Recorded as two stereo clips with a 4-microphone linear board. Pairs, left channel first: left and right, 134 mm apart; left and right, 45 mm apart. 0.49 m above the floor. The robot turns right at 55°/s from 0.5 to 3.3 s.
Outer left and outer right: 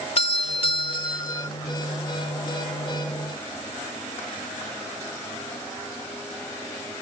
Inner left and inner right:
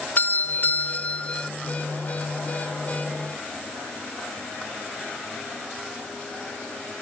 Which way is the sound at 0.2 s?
100° left.